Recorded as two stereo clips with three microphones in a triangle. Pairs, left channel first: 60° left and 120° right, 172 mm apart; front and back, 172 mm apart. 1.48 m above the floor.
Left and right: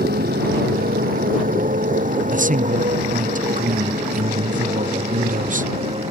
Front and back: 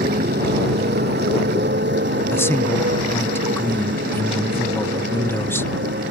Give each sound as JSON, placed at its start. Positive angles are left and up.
{"t": 0.0, "sound": "a motorcycle", "azimuth_deg": -150}
{"t": 2.3, "sound": "a man speaking", "azimuth_deg": -75}